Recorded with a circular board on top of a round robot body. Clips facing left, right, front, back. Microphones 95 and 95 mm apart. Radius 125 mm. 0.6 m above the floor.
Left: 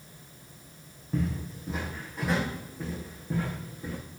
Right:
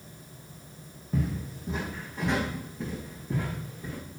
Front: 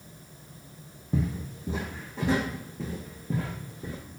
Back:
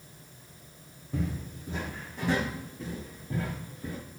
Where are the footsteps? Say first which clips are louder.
Even, front 4 dB; 5° right, 2.0 m; by 4.0 s 10° left, 4.5 m.